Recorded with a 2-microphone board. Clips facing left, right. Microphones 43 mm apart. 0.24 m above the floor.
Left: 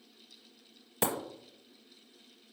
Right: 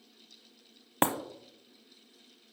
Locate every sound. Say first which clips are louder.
1.0 s breaking glass: right 4 dB; 45° right (ahead or behind), 0.9 m